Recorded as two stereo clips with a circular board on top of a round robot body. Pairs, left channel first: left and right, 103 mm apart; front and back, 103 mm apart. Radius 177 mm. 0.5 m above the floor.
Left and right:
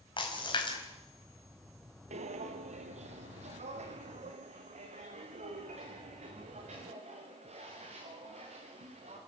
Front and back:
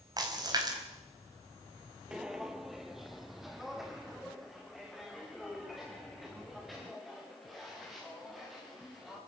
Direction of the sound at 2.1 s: 95° right.